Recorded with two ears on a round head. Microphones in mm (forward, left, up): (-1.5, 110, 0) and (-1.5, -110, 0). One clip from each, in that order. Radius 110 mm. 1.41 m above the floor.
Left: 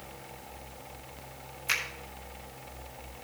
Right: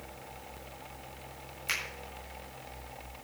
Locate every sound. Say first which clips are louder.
1.7 s a finger snap: left 4 dB; 10° right (ahead or behind), 7.5 m